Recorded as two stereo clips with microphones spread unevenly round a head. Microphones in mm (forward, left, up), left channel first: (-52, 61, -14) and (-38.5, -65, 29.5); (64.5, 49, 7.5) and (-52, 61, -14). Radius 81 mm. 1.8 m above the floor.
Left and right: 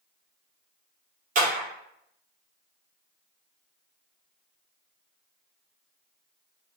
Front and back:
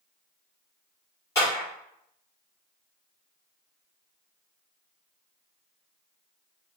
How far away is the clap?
About 1.7 m.